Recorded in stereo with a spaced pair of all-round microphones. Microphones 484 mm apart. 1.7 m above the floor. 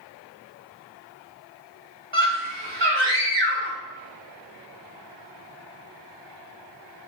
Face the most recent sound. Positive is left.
turn(degrees=-60)  # may be behind; listen again after turning